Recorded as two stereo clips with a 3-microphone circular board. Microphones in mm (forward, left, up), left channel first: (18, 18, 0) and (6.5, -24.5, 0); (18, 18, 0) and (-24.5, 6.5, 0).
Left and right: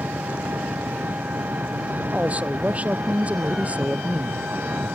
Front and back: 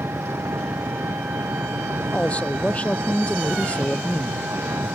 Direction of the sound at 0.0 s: 145° right.